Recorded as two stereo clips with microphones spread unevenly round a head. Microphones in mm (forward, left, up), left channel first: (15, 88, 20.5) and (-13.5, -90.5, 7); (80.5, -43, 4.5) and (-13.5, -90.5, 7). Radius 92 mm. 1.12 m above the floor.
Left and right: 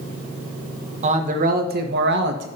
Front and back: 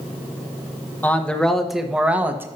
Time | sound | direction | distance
1.0 | a man speaking | 45° right | 1.3 m